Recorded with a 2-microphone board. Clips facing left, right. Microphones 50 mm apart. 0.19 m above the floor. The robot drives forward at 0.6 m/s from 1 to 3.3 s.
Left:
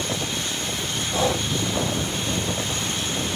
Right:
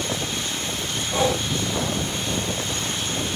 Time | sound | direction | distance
1.1 | breathing | 20° right (ahead or behind) | 2.5 m